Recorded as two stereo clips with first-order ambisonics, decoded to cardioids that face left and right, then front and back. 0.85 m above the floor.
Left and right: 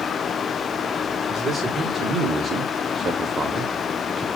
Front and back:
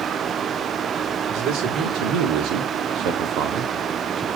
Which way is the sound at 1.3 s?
155° right.